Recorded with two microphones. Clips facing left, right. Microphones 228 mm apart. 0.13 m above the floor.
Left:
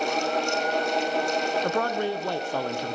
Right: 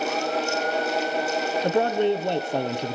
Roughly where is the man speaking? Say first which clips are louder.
Right 5 dB; right.